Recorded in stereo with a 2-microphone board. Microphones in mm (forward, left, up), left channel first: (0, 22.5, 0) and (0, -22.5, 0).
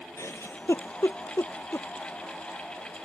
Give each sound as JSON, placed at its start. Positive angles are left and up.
{"t": 0.2, "sound": "a giggle", "side_deg": 85}